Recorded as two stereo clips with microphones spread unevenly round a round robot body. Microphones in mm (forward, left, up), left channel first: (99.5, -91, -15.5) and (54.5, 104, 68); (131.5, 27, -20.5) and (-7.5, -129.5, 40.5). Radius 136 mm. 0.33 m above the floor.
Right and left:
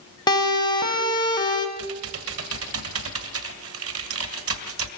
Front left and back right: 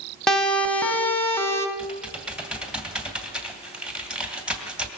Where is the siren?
30° right, 3 m; by 1.7 s 20° right, 4 m.